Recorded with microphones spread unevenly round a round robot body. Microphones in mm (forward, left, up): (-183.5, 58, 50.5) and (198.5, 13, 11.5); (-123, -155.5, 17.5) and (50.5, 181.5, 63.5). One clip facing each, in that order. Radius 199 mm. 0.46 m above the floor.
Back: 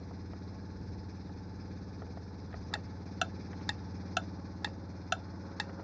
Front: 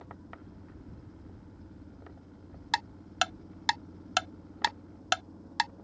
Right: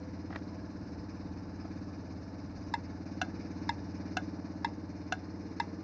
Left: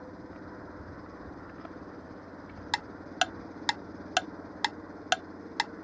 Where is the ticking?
50° left.